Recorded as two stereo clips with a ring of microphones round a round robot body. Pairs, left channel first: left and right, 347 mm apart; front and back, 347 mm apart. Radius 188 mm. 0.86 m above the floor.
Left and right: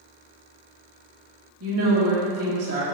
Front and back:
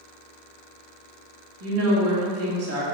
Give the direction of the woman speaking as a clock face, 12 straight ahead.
5 o'clock.